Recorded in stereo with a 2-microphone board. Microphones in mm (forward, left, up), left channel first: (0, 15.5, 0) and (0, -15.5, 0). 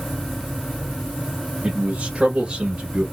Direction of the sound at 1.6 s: 40° right (ahead or behind).